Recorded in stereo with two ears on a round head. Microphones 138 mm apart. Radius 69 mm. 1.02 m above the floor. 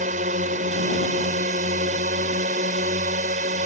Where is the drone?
55° right (ahead or behind).